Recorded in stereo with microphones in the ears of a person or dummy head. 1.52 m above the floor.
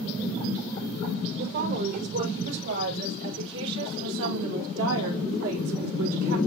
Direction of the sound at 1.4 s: 60° right (ahead or behind).